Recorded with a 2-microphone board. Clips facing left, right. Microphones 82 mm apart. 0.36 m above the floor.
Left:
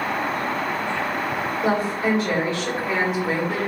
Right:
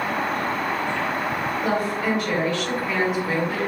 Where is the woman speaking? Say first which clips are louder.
Left 3 dB; 30° left (ahead or behind), 1.7 m.